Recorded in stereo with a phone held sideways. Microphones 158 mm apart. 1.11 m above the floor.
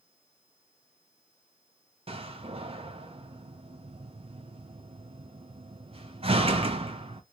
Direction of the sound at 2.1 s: 35° right (ahead or behind).